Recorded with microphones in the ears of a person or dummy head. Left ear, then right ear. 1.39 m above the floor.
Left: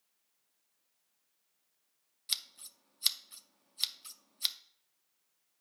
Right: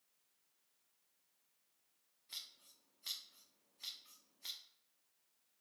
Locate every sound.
2.3 s scissors: 55° left (ahead or behind), 0.6 m